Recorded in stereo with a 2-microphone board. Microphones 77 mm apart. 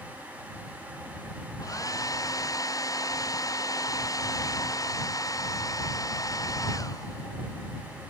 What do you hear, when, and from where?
1.6 s a hair dryer: 45° left (ahead or behind)